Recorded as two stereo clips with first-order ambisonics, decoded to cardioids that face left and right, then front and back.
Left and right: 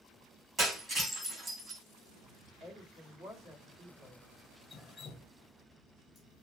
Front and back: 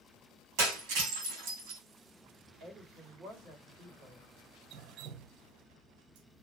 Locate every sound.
0.6 s breaking glass: 165° right, 4 m
2.6 s a woman speaking: 145° right, 2 m
4.7 s dripping: 165° left, 1.0 m